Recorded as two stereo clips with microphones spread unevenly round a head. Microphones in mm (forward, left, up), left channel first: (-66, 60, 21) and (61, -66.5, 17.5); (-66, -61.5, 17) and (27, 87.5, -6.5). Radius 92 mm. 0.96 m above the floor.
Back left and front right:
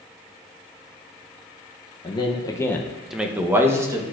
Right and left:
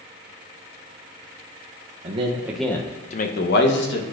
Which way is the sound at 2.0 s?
80° left.